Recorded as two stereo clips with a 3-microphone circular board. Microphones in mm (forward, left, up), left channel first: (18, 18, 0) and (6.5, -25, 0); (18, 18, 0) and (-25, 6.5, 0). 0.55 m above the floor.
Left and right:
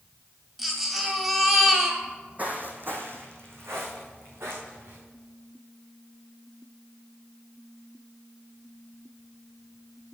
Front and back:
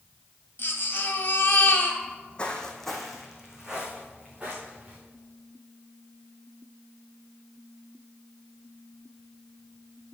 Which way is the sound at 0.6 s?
25° right.